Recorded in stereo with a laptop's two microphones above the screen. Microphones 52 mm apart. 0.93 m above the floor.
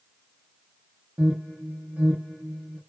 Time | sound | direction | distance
1.2 | an alarm | 30° right (ahead or behind) | 1.1 m